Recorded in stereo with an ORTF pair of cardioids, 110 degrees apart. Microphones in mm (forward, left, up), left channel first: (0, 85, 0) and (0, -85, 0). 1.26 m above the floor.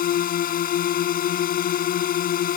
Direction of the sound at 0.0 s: 55° left.